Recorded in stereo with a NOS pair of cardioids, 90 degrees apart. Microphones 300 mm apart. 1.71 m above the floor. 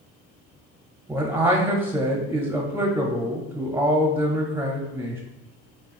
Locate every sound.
1.1 s a man speaking: 10° right, 0.6 m